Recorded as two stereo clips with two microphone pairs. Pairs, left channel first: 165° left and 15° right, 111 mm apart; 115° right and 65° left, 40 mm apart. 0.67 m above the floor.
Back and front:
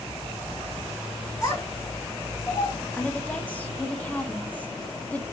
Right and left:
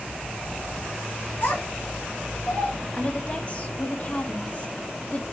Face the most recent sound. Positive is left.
turn(degrees=-130)